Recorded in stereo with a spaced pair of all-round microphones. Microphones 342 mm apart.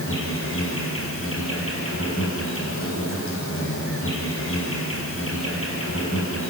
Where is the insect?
40° left (ahead or behind), 4 m.